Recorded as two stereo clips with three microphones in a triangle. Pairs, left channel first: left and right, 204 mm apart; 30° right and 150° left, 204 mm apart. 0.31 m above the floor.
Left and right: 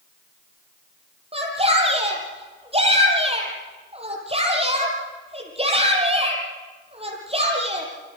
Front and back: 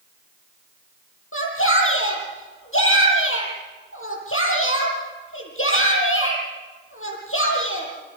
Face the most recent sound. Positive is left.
turn(degrees=-30)